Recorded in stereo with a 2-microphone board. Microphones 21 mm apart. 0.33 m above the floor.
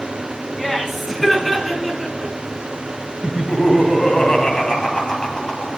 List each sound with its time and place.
0.6 s laughter: 10° left (ahead or behind), 4 m; by 2.3 s centre (ahead or behind), 4.5 m
3.2 s laughter: 40° left (ahead or behind), 3 m